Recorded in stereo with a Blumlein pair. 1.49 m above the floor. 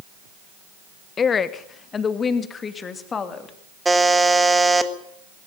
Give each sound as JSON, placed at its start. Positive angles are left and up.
{"t": 1.2, "sound": "a woman speaking", "azimuth_deg": 20, "distance_m": 1.4}
{"t": 3.9, "sound": "a buzzer", "azimuth_deg": -5, "distance_m": 1.6}